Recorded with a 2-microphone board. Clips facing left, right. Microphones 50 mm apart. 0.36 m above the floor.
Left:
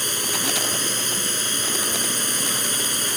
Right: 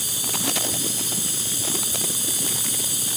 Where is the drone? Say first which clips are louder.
Left 3 dB; 55° left (ahead or behind).